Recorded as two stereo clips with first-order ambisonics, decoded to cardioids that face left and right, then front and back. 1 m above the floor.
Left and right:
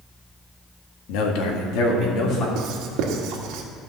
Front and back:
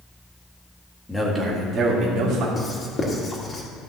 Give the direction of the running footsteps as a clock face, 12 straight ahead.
No running footsteps in this recording.